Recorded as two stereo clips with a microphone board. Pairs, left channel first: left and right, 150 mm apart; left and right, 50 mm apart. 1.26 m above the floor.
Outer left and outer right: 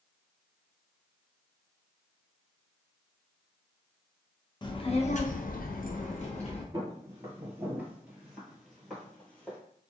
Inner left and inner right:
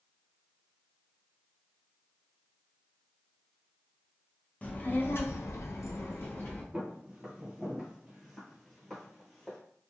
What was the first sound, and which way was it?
A child speaking, 30° left (ahead or behind).